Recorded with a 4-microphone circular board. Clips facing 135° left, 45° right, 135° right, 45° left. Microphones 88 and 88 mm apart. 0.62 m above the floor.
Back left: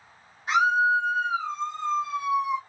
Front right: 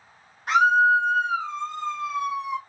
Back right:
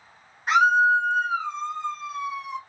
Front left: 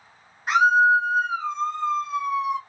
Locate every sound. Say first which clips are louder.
0.5 s a scream: front right 3 dB, front left 1 dB; 40° right, 1.7 m